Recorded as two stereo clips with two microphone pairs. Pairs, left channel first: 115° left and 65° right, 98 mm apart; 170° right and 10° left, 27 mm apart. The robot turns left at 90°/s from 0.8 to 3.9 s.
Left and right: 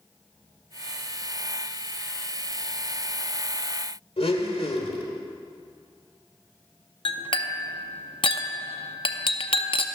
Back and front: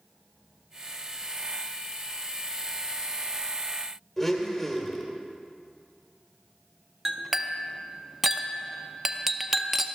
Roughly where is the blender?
Left.